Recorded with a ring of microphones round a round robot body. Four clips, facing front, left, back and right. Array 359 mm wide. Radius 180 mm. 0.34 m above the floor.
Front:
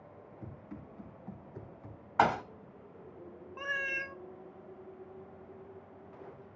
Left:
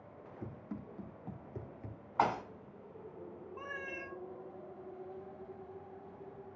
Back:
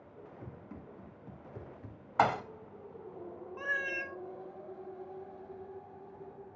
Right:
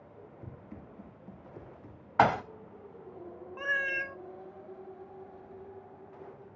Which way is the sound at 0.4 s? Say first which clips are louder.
Left 5 dB, front 3 dB; 100° left.